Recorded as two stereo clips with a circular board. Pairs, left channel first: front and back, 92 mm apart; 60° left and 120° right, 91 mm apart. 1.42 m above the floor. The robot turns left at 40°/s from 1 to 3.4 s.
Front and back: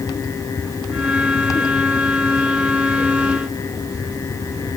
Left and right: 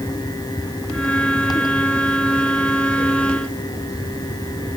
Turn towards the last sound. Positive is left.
No sound to turn to.